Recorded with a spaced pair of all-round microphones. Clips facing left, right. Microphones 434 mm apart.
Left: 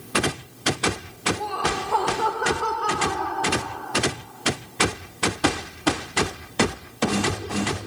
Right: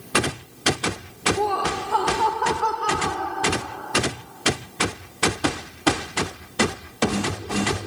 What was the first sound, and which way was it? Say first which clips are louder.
Laughter: right 4 dB; 80° right.